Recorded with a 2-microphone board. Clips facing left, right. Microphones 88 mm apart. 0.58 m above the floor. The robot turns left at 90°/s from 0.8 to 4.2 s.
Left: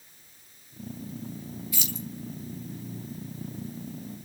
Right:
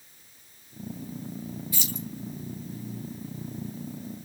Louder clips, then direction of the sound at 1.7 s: Right 1 dB; 30° right (ahead or behind).